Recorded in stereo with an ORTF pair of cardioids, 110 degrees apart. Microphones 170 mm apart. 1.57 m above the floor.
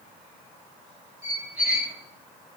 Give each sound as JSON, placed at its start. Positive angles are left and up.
{"t": 1.2, "sound": "a squeak", "azimuth_deg": -5, "distance_m": 1.8}